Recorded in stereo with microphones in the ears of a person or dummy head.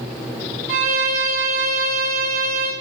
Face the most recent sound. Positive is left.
turn(degrees=-35)  # may be behind; listen again after turning